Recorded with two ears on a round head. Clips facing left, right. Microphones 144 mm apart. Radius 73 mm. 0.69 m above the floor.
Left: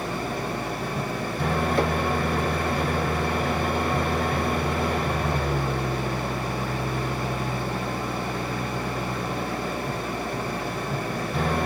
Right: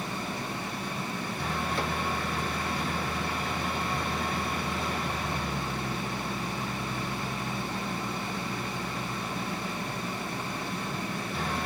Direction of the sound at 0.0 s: 50° left (ahead or behind).